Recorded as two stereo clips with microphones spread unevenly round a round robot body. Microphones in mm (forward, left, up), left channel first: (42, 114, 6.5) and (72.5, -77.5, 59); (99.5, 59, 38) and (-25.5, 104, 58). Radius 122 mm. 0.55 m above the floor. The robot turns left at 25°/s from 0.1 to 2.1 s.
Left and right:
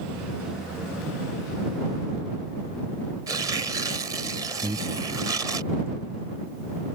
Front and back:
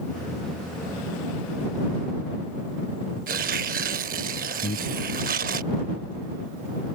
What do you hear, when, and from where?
3.3 s tearing paper: 155° right
4.6 s breathing: 10° right